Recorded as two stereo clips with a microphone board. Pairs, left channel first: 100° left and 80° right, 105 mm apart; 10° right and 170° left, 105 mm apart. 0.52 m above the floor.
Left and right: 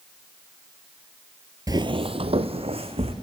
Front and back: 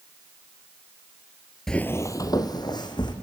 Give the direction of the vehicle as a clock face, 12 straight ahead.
No vehicle in this recording.